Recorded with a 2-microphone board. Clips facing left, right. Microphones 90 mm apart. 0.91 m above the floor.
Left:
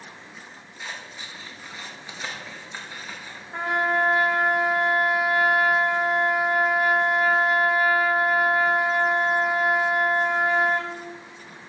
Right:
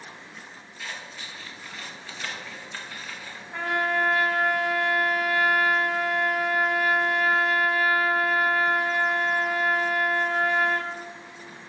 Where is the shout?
No shout in this recording.